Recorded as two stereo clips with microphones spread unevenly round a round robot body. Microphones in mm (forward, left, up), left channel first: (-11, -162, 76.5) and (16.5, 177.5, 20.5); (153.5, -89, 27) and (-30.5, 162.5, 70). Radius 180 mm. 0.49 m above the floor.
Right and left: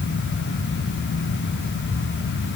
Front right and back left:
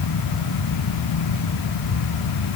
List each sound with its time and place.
Only background noise.